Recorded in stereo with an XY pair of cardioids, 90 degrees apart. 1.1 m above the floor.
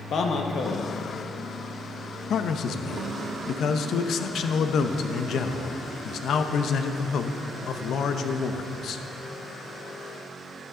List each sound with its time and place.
0.1 s a man speaking: 65° left, 1.2 m
2.3 s a man speaking: 70° left, 0.7 m